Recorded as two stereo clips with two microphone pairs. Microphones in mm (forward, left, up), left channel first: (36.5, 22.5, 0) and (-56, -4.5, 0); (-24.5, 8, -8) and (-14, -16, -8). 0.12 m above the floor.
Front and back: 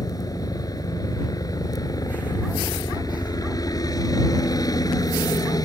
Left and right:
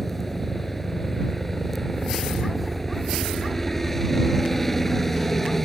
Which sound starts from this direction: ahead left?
A helicopter, at 0.0 s.